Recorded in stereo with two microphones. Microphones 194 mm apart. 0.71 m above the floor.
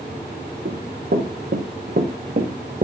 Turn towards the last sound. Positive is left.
turn(degrees=-45)  # may be behind; listen again after turning